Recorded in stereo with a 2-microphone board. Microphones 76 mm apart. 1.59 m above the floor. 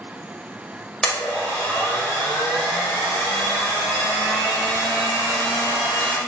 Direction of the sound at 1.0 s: 10° left (ahead or behind).